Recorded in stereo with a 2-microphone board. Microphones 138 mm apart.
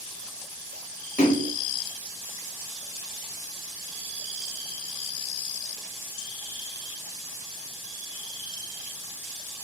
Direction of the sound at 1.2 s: 75° left (ahead or behind).